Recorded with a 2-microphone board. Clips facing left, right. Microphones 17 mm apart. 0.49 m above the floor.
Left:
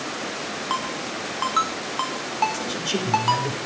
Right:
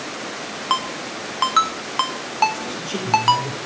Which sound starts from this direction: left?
A man speaking, at 2.5 s.